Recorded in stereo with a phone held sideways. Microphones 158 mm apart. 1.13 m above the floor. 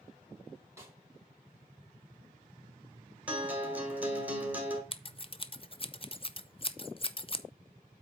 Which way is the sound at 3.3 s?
10° right (ahead or behind).